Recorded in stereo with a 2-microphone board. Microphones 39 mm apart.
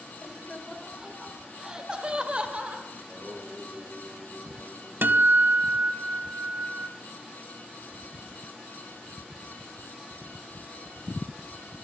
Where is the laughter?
5° left (ahead or behind), 2 m; by 2.9 s 30° right (ahead or behind), 2 m.